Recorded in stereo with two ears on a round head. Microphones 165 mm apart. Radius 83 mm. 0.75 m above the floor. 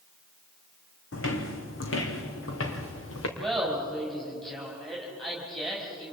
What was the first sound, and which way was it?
Footsteps, 70° left (ahead or behind).